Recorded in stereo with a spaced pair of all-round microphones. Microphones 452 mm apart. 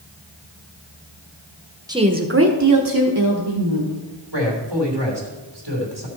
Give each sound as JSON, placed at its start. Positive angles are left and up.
{"t": 1.9, "sound": "a woman speaking", "side_deg": -10, "distance_m": 1.0}
{"t": 4.3, "sound": "a man speaking", "side_deg": -65, "distance_m": 2.5}